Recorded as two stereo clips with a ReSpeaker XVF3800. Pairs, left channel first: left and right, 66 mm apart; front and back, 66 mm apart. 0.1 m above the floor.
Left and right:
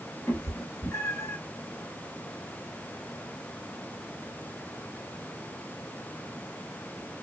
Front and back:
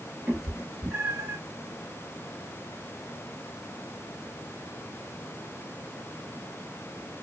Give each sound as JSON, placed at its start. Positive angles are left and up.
{"t": 0.3, "sound": "a cat meowing", "azimuth_deg": 125, "distance_m": 1.1}